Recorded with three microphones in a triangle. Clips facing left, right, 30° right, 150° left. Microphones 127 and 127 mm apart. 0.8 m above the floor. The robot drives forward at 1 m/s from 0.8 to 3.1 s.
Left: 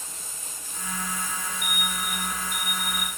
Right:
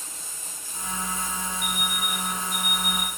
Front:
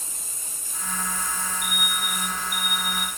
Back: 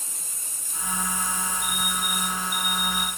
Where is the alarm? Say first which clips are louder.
Right 1 dB, back 1 dB; 40° right, 6 m; by 3.1 s 50° right, 5 m.